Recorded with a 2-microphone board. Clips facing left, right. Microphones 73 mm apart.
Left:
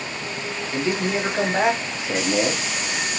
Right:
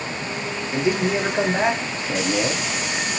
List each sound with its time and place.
0.7 s a man speaking: 15° right (ahead or behind), 1.3 m; by 2.7 s 25° left (ahead or behind), 1.6 m